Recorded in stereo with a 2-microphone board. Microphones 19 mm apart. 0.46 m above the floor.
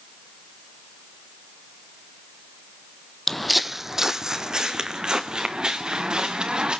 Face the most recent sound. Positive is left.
turn(degrees=-50)  # may be behind; listen again after turning